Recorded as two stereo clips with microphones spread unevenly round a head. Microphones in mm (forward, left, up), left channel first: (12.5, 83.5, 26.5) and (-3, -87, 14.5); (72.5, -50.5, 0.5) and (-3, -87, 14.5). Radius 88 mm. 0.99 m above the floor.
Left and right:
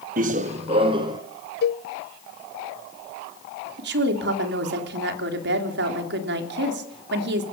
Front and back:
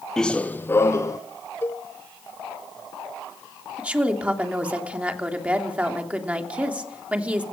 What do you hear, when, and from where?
0.2 s running footsteps: 65° right, 1.4 m; by 1.2 s 30° right, 2.5 m
1.6 s a cowbell: 85° left, 0.5 m
3.8 s a woman speaking: 80° right, 3 m